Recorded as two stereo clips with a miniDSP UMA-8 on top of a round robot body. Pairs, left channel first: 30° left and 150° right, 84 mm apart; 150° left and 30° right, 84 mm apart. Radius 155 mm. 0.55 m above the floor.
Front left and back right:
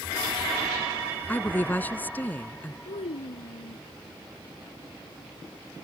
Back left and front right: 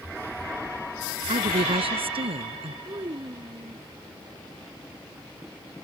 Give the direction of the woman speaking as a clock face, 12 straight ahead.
1 o'clock.